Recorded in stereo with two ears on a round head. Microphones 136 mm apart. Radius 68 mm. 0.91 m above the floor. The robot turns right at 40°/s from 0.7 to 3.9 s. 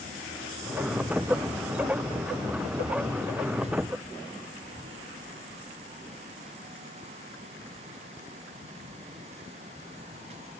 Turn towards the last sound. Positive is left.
No sound to turn to.